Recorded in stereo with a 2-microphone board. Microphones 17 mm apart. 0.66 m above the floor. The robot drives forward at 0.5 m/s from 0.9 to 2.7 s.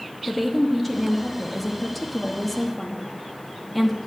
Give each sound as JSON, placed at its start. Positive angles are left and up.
{"t": 0.3, "sound": "a woman speaking", "side_deg": 5, "distance_m": 0.9}